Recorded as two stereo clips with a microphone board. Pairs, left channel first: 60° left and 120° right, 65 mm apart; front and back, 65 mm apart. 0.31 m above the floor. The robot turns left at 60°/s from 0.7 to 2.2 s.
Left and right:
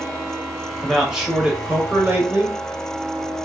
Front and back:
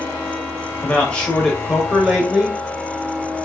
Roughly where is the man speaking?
Ahead right.